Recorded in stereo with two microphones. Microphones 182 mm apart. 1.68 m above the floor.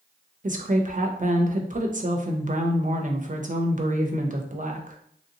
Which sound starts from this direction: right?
A woman speaking, at 0.4 s.